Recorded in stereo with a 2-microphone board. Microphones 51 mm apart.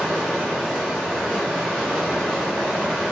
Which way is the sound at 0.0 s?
5° left (ahead or behind).